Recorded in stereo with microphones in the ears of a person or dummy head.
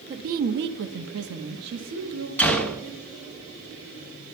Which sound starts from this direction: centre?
A gunshot, at 2.4 s.